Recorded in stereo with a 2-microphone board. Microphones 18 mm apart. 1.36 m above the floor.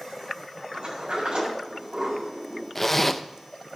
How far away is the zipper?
About 0.6 m.